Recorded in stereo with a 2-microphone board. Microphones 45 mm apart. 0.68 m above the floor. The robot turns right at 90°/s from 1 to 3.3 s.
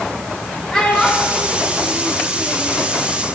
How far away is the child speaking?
About 0.9 m.